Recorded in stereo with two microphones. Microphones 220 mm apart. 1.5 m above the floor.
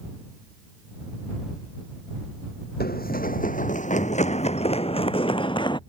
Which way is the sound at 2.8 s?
45° left (ahead or behind).